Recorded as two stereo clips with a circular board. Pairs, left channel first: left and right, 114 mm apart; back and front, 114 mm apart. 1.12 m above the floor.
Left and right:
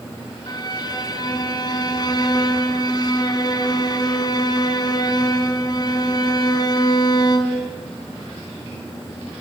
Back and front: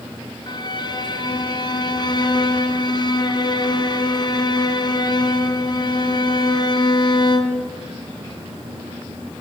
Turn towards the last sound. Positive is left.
turn(degrees=135)